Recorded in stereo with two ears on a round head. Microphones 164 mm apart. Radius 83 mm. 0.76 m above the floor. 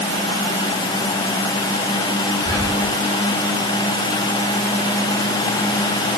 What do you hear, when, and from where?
2.5 s whispering: 20° left (ahead or behind), 6.5 m